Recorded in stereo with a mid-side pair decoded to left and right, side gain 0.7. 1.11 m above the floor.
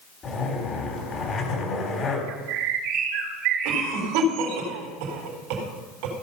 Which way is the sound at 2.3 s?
65° right.